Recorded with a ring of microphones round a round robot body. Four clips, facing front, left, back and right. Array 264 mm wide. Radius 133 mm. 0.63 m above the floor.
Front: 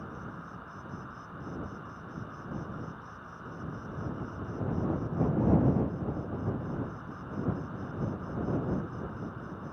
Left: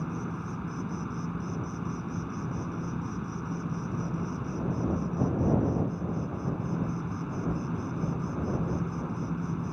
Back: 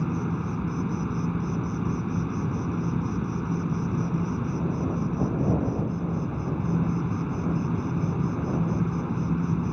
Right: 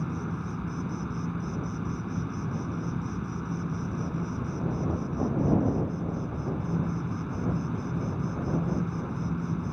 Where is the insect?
175° right.